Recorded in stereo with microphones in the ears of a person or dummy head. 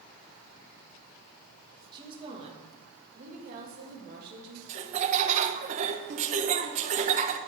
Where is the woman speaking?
25° right (ahead or behind), 2 m; by 4.6 s 55° right (ahead or behind), 3 m.